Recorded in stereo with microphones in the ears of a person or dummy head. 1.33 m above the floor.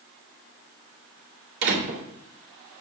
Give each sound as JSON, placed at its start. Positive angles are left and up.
{"t": 1.6, "sound": "a door slam", "side_deg": -80, "distance_m": 2.5}